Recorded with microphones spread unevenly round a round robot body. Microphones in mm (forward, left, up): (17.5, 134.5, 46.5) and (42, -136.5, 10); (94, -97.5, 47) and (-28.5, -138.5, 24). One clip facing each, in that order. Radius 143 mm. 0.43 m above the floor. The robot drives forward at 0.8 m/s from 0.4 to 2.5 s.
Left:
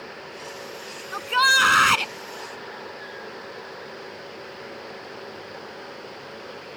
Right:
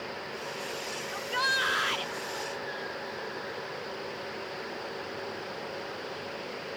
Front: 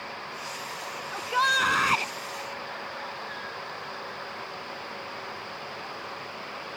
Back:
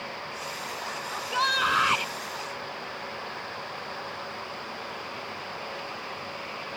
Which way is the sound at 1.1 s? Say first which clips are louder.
Left 8 dB, front 2 dB; 80° left.